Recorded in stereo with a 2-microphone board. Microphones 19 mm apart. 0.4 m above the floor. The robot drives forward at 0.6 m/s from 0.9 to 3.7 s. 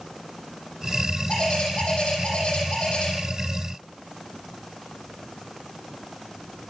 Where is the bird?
55° left (ahead or behind), 10 m; by 3.1 s 60° left (ahead or behind), 9 m.